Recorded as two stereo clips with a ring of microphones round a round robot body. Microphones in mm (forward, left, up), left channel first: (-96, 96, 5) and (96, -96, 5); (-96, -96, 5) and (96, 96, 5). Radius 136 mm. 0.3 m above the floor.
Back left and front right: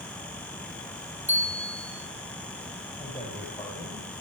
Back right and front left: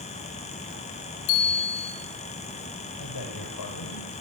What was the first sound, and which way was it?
A bicycle bell, 130° right.